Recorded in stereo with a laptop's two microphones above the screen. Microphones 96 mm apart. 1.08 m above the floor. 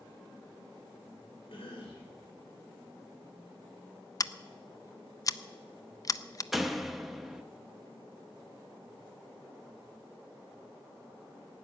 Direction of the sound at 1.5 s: 70° left (ahead or behind).